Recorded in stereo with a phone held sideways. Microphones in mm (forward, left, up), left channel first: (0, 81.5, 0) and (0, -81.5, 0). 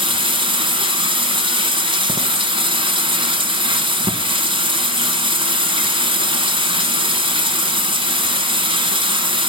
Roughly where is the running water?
Right.